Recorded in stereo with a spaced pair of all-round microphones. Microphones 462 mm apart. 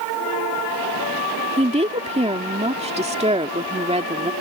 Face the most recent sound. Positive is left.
turn(degrees=-15)  # may be behind; listen again after turning